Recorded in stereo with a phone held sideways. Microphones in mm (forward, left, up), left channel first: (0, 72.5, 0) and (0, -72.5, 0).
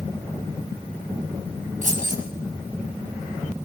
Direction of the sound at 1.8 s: 60° right (ahead or behind).